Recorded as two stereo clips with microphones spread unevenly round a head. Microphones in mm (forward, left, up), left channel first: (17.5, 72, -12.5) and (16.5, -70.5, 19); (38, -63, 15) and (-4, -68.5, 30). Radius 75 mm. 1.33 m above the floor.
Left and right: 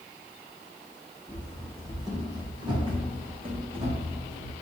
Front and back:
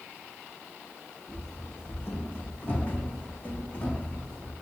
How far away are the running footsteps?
About 3 m.